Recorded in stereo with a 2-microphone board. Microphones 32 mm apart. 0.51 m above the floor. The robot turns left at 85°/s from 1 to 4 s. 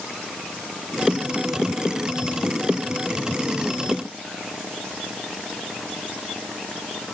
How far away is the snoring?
I don't hear snoring.